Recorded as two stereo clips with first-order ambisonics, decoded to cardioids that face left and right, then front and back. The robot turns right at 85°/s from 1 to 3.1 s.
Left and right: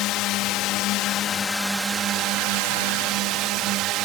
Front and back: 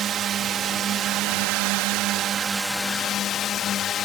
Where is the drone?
125° left; by 4.0 s 55° right.